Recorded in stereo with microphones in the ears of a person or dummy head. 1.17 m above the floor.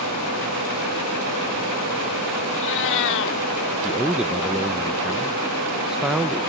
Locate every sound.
2.5 s a cat meowing: 60° left (ahead or behind)
3.8 s a man speaking: 5° right (ahead or behind)